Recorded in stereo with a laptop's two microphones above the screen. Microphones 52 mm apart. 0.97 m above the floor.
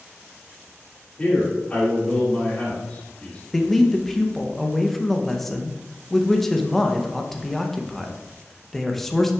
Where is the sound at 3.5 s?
5° left (ahead or behind), 0.7 m.